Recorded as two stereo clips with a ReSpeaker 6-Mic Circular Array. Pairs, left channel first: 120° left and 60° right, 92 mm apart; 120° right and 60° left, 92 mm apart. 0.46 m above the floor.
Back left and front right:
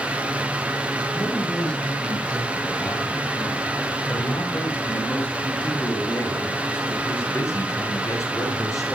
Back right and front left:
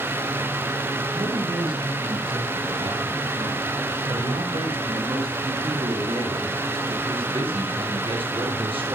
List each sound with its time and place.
1.1 s a man speaking: 40° left, 9 m; by 9.0 s 70° left, 7 m